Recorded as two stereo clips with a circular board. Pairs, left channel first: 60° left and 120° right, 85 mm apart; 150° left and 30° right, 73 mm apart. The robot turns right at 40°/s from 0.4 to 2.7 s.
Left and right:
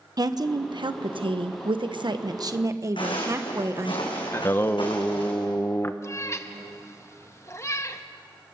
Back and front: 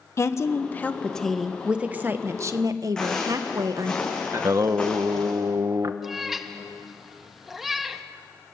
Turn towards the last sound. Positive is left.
turn(degrees=55)